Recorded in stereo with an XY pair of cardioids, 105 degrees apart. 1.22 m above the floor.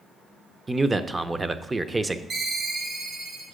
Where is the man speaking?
20° right, 0.7 m.